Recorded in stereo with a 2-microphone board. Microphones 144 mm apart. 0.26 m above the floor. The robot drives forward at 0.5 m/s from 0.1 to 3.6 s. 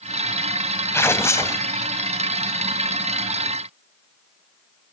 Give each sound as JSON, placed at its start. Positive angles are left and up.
{"t": 0.9, "sound": "tearing paper", "side_deg": 15, "distance_m": 1.1}